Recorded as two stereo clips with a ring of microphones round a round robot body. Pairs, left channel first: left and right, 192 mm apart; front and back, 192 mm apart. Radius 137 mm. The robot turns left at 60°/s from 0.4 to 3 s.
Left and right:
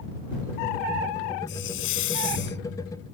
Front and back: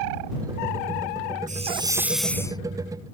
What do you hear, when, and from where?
1.5 s a hiss: 135° left; by 2.6 s 65° left